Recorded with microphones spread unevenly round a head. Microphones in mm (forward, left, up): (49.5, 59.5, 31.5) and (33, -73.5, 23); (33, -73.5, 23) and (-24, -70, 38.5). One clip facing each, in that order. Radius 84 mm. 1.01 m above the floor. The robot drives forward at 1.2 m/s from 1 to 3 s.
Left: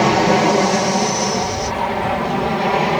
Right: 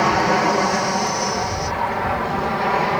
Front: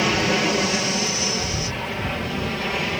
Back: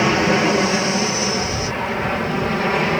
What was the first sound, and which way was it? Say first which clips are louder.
An aircraft: left 4 dB, back 4 dB; 125° left.